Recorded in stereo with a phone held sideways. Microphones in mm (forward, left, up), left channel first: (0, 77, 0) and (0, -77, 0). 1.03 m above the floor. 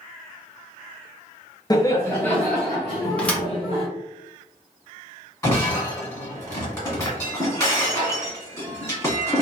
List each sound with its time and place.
1.7 s laughter: 25° left (ahead or behind), 0.6 m; by 3.9 s 5° right (ahead or behind), 1.5 m
3.2 s a thud: 10° left (ahead or behind), 0.8 m
5.4 s breaking glass: 25° left (ahead or behind), 1.4 m